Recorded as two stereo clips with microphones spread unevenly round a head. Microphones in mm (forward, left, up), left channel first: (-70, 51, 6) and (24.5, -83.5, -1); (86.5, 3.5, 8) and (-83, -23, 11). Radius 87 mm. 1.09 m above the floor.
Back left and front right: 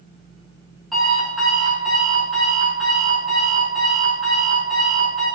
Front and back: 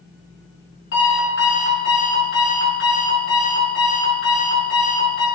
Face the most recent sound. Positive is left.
turn(degrees=35)